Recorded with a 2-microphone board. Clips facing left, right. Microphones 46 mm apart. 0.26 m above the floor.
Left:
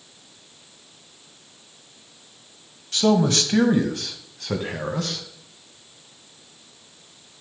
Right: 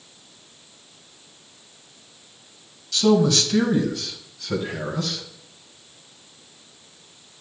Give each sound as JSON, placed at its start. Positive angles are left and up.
{"t": 2.9, "sound": "a man speaking", "side_deg": 35, "distance_m": 1.8}